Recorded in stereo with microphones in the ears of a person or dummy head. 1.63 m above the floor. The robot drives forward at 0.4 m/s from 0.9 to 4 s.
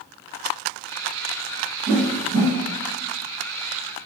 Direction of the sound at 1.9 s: 60° right (ahead or behind).